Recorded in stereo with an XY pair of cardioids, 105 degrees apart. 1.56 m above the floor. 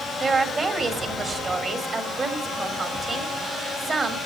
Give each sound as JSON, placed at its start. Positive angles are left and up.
{"t": 0.2, "sound": "a woman speaking", "azimuth_deg": -40, "distance_m": 3.5}